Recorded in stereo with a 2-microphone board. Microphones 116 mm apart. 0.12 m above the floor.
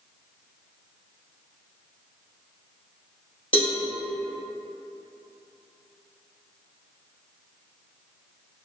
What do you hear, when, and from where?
3.5 s a cowbell: 45° left (ahead or behind), 1.0 m